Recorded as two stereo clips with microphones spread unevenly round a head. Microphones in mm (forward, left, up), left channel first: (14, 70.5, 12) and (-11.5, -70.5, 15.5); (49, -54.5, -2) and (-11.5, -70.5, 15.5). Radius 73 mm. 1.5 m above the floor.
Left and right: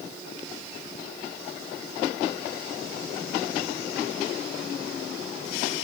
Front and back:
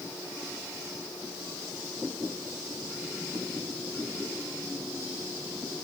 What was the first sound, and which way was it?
Only background noise.